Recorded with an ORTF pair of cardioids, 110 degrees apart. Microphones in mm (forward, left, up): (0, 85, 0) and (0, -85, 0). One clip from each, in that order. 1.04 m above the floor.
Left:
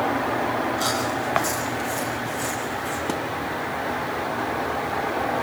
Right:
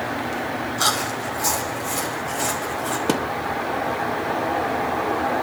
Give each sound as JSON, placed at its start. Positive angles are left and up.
{"t": 0.8, "sound": "chewing", "azimuth_deg": -35, "distance_m": 5.0}
{"t": 3.1, "sound": "a thud", "azimuth_deg": -40, "distance_m": 0.9}